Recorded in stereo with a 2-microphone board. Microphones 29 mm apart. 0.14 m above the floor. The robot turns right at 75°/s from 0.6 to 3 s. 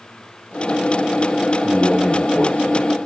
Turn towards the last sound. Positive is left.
turn(degrees=125)